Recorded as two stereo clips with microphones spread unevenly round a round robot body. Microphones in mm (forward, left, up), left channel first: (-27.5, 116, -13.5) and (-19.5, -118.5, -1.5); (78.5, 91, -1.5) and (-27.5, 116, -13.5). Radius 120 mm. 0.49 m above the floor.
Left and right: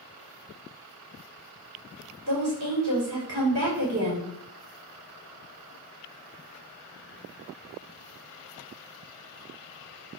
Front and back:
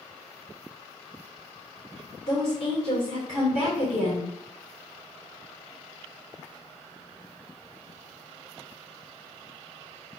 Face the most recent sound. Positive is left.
turn(degrees=-60)